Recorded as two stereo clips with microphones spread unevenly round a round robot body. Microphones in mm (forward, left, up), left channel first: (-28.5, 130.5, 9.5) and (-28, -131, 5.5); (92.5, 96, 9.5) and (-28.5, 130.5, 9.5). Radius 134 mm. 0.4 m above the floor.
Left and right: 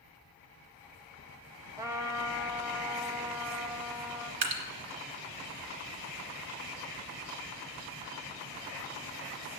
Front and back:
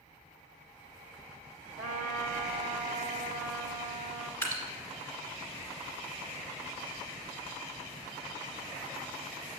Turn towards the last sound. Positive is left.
turn(degrees=-90)